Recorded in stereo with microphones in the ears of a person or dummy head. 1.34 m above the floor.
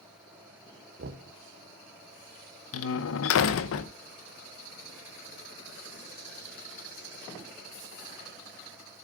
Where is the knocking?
60° right (ahead or behind), 1.4 m.